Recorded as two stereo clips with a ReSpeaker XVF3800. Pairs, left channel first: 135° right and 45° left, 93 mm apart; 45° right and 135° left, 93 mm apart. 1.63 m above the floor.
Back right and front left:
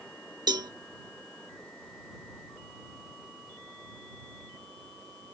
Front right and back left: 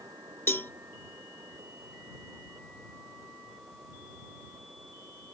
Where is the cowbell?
15° left.